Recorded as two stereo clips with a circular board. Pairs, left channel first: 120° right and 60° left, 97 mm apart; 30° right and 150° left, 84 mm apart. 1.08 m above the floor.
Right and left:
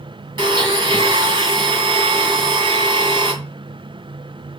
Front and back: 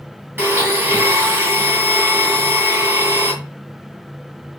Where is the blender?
90° left, 2.5 m.